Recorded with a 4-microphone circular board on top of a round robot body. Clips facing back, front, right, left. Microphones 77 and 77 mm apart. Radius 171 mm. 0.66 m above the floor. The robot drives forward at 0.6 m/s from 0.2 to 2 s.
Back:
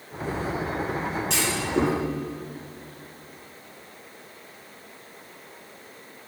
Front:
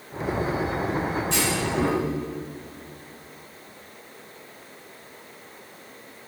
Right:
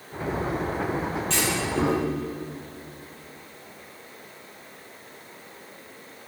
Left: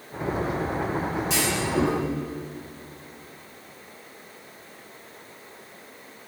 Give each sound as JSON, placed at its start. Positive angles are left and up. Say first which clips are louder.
{"t": 1.3, "sound": "a clunk", "louder": "even, left 1 dB", "azimuth_deg": 170, "distance_m": 3.5}